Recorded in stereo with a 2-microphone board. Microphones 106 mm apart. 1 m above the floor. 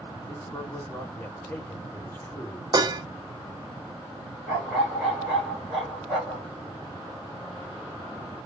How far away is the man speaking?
About 2 m.